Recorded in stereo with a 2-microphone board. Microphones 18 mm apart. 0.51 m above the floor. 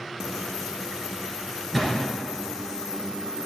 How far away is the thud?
About 3 m.